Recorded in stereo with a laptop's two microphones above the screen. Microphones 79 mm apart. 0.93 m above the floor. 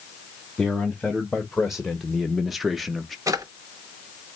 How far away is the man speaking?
About 1.7 m.